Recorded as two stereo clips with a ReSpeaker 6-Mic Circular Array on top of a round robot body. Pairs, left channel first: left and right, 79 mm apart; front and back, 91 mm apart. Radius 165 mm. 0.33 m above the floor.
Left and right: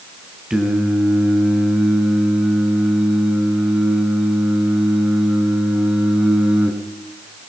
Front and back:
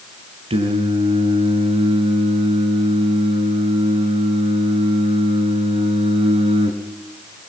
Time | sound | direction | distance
0.5 | singing | 170° right | 4 m